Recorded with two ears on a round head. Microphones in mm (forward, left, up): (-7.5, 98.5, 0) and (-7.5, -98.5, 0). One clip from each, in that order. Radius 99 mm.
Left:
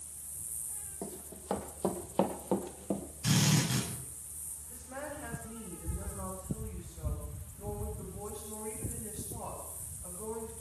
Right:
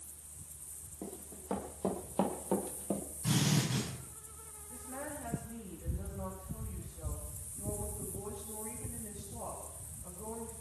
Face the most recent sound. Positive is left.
turn(degrees=40)  # may be behind; listen again after turning